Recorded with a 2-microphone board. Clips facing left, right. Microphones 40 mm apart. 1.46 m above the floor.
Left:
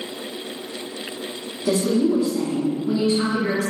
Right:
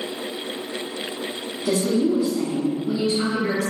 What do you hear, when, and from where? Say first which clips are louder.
1.6 s a woman speaking: left 1 dB; 15° left (ahead or behind), 0.7 m